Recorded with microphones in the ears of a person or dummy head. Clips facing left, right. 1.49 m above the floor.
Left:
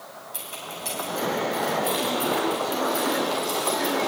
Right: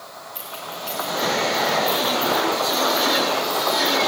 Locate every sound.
0.3 s keys jangling: 65° left (ahead or behind), 7 m; by 4.1 s 75° left (ahead or behind), 8.5 m